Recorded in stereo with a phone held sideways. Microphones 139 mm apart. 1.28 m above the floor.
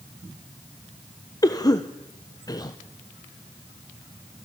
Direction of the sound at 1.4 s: 25° left (ahead or behind).